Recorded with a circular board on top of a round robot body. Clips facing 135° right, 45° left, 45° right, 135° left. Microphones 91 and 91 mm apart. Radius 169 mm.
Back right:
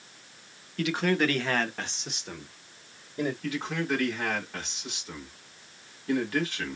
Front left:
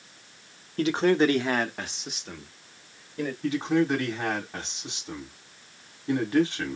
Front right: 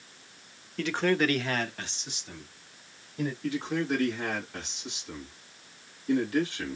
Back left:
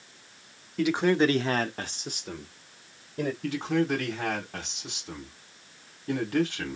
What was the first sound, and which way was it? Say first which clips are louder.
A man speaking: front left 5 dB, back left 3 dB; 55° left.